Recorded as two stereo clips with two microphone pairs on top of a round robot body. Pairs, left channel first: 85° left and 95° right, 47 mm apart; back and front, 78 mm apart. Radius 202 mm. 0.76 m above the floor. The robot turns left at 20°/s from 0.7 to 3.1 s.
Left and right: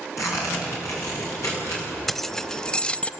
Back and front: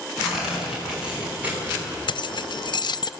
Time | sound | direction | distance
0.2 | tearing paper | 85° left | 6.5 m
2.1 | keys jangling | 175° left | 0.6 m